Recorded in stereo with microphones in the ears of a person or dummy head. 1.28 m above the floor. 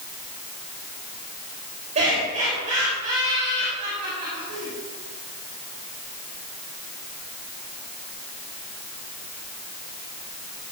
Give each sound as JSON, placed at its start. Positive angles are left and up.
{"t": 1.9, "sound": "laughter", "side_deg": -35, "distance_m": 6.0}